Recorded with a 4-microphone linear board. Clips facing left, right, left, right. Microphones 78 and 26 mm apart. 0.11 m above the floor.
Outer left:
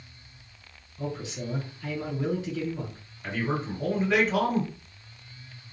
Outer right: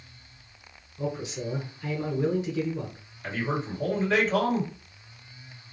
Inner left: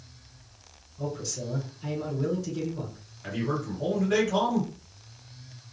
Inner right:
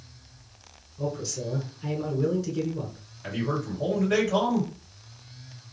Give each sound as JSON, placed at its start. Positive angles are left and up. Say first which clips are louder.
{"t": 1.0, "sound": "a man speaking", "louder": "outer right 2 dB, inner right 3 dB", "side_deg": -20, "distance_m": 1.0}
{"t": 3.2, "sound": "a man speaking", "louder": "even, inner right 1 dB", "side_deg": 0, "distance_m": 1.9}